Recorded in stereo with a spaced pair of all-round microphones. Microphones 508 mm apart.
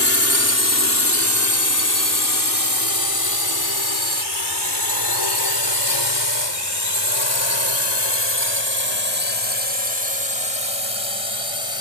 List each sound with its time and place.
0.0 s a drone: 25° left (ahead or behind); by 11.8 s 70° left (ahead or behind)